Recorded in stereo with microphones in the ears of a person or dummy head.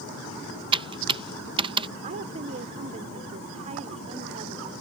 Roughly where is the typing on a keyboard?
Right.